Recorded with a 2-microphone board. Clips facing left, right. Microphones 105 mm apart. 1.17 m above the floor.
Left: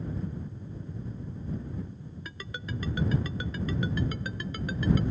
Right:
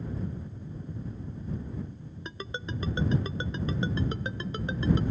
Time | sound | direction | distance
2.2 | a ringtone | 25° right (ahead or behind) | ?